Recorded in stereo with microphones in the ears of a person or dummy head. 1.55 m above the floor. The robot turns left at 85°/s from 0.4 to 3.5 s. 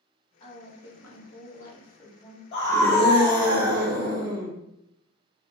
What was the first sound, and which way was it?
A woman speaking, 150° left.